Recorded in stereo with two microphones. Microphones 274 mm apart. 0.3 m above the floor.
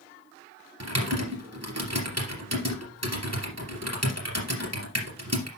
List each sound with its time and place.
0.8 s typing on a keyboard: 65° right (ahead or behind), 3 m